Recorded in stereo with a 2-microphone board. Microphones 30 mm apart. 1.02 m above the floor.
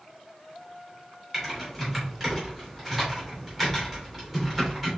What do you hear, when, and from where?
1.3 s typing on a keyboard: centre (ahead or behind), 2.5 m